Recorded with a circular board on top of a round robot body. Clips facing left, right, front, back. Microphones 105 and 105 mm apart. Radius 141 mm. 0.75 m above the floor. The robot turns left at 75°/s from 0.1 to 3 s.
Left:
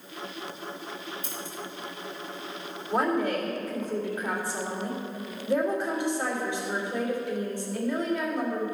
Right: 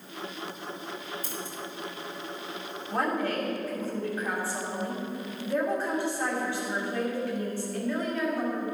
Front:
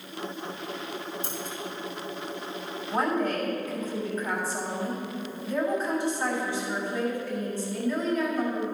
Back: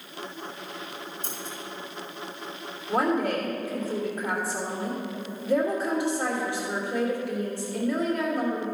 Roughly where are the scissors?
Ahead right.